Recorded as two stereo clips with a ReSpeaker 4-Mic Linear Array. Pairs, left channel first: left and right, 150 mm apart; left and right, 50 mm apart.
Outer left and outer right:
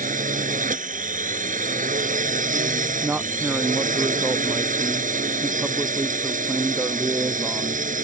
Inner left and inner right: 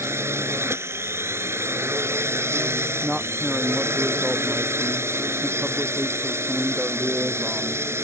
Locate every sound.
0.0 s a drone: 60° right (ahead or behind)
3.0 s a man speaking: 15° right (ahead or behind)